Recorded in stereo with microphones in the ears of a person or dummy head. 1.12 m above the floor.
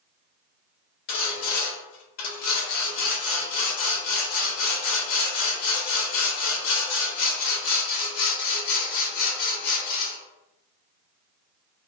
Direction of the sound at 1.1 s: 55° left (ahead or behind).